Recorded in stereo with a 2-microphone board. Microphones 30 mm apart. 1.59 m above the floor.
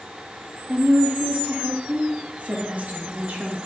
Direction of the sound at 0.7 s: 50° right (ahead or behind).